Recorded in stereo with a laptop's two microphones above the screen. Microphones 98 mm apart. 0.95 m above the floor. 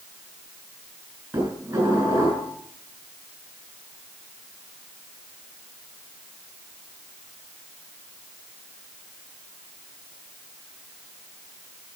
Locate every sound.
1.3 s dishes clattering: 20° right (ahead or behind), 8.5 m